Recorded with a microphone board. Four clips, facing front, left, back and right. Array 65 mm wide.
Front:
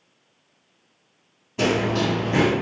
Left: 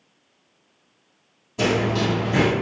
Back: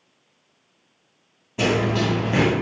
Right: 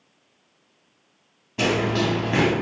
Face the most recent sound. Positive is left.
turn(degrees=-105)